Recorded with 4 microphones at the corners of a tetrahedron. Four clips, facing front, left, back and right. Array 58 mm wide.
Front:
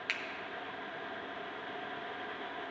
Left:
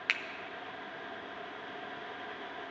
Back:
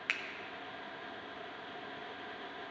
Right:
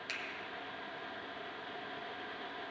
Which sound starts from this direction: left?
A finger snap, at 0.1 s.